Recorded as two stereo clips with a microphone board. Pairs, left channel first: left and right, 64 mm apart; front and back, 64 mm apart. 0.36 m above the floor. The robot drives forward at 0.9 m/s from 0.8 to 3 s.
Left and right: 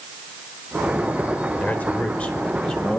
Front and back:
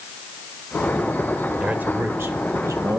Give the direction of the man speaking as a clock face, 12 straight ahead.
8 o'clock.